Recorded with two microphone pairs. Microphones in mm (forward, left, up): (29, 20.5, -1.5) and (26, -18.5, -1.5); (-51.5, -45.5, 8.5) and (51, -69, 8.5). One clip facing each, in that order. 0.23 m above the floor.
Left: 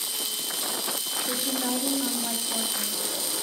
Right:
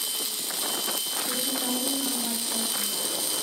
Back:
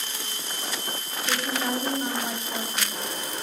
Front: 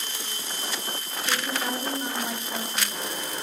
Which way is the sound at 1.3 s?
90° left.